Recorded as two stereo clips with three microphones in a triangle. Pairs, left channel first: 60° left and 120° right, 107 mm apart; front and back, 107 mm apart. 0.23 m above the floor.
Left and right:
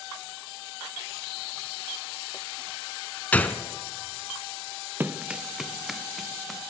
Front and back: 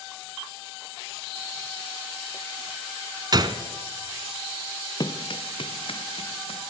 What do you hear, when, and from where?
3.3 s a gunshot: 135° left, 1.0 m
5.0 s running footsteps: 45° right, 1.0 m; by 6.6 s 30° right, 3 m